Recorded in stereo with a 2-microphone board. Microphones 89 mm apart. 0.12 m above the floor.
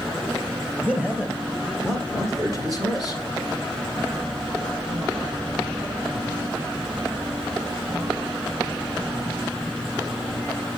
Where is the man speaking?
15° right (ahead or behind), 3 m; by 3.2 s 50° right (ahead or behind), 3 m.